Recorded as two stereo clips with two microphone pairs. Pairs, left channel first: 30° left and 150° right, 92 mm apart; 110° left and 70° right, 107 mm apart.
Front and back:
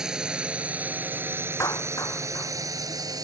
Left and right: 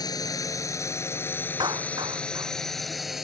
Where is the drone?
130° left; by 3.2 s 155° right.